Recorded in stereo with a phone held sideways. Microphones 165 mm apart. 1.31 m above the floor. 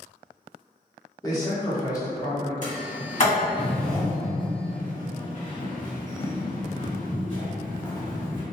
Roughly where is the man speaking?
Left.